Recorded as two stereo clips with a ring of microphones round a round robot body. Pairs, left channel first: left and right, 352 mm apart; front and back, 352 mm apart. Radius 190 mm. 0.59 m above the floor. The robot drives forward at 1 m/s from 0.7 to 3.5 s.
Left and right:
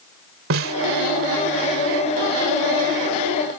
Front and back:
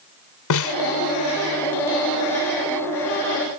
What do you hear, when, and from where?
0.5 s a snare drum: 35° right